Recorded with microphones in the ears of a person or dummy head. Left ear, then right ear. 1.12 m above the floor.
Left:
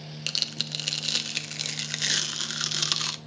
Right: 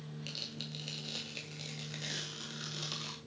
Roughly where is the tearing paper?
Left.